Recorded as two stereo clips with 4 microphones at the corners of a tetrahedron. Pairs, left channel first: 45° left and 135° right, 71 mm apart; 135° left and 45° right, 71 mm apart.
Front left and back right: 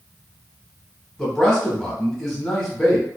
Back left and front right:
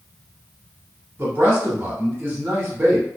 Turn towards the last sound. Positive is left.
turn(degrees=-35)